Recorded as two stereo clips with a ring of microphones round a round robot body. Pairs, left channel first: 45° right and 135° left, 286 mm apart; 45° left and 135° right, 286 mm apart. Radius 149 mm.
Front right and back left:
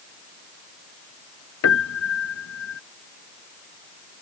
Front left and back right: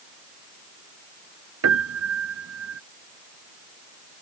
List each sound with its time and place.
1.6 s a piano: 90° right